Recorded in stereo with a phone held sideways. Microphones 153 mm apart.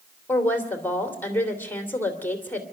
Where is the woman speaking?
10° left (ahead or behind), 3 m.